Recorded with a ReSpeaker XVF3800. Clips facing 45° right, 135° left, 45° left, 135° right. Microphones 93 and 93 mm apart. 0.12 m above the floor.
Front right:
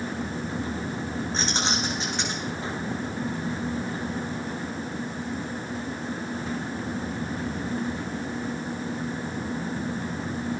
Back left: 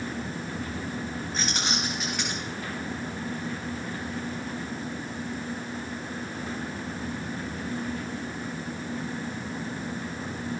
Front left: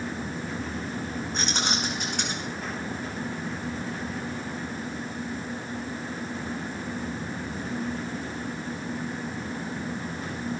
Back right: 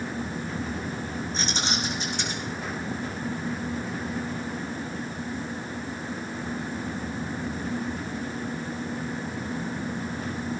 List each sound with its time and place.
1.3 s keys jangling: 15° left, 6 m